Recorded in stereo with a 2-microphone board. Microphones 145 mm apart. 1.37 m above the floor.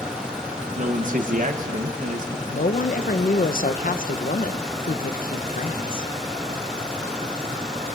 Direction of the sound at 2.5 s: 75° left (ahead or behind).